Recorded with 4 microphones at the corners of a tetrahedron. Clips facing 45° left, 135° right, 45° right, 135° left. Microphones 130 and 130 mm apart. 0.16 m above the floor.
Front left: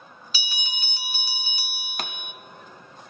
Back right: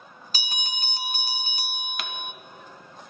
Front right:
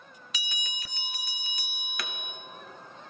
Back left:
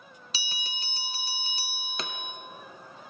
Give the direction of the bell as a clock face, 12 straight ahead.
6 o'clock.